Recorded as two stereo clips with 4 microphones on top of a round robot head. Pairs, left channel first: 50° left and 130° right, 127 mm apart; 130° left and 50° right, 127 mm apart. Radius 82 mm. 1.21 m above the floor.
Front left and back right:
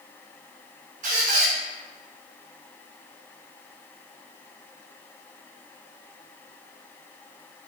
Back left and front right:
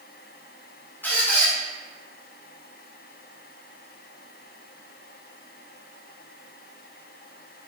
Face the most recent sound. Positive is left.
turn(degrees=-155)